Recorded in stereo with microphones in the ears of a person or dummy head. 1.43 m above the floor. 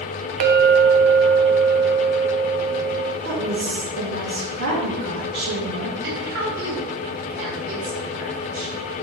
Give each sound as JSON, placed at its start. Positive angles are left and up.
{"t": 0.4, "sound": "a clink", "side_deg": -50, "distance_m": 0.6}
{"t": 3.2, "sound": "a woman speaking", "side_deg": -75, "distance_m": 1.5}
{"t": 6.0, "sound": "a woman speaking", "side_deg": -75, "distance_m": 1.6}